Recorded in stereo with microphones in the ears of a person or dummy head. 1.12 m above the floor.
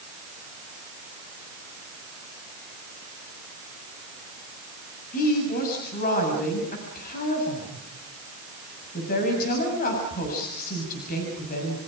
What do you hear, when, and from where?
5.1 s a woman speaking: 50° left (ahead or behind), 7 m